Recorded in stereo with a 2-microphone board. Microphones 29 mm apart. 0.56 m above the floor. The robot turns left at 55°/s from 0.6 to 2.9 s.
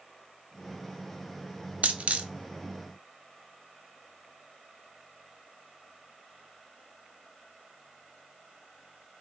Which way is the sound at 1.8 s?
60° right (ahead or behind).